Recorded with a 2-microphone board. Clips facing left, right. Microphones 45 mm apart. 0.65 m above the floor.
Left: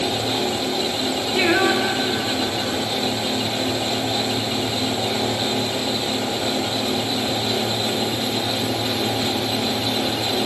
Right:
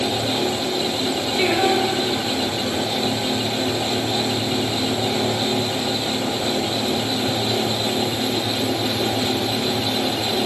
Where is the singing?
85° left, 4.5 m.